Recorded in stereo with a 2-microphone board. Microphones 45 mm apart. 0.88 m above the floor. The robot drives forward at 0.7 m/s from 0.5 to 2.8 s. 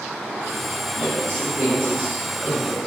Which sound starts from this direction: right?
A man speaking, at 1.0 s.